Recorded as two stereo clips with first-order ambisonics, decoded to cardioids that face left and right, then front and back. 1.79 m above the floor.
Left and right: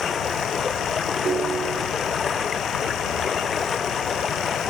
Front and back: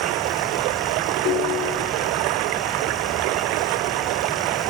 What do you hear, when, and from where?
0.0 s running water: 160° left
1.2 s a ringtone: 30° right